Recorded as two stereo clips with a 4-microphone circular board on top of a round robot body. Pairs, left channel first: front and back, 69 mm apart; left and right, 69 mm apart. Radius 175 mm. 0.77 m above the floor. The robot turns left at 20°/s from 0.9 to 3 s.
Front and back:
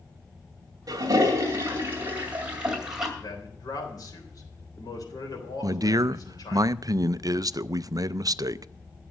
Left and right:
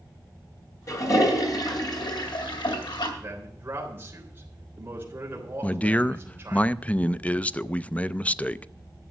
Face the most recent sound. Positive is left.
turn(degrees=160)